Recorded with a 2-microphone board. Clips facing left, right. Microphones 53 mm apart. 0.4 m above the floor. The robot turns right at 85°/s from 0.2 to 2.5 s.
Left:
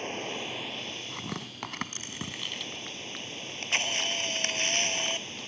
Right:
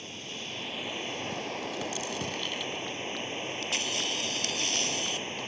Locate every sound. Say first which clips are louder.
0.0 s running water: left 6 dB; 135° left; by 5.5 s 30° right
1.1 s tearing paper: right 4 dB; 55° left (ahead or behind); by 2.9 s centre (ahead or behind)
3.4 s a camera shutter: left 6 dB; 40° left (ahead or behind)